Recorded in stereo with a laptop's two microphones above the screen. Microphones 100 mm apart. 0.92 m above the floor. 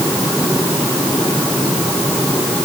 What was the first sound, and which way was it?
Only background noise.